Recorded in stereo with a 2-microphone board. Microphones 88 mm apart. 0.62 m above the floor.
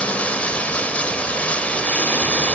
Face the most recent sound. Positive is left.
turn(degrees=15)  # may be behind; listen again after turning